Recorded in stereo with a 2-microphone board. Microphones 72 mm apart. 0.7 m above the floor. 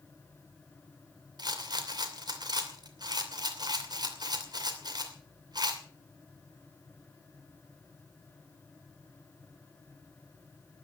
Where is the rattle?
70° right (ahead or behind), 2.5 m.